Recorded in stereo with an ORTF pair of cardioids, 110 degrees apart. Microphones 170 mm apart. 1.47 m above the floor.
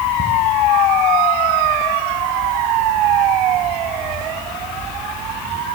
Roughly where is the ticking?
Ahead right.